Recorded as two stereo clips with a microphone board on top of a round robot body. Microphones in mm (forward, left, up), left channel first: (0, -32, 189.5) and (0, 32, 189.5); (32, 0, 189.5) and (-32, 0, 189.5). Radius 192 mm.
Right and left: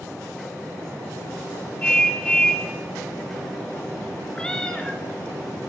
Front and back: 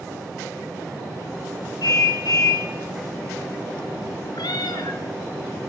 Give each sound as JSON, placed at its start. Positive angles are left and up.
{"t": 1.8, "sound": "a car horn", "azimuth_deg": -15, "distance_m": 6.5}
{"t": 4.3, "sound": "a cat meowing", "azimuth_deg": -10, "distance_m": 4.0}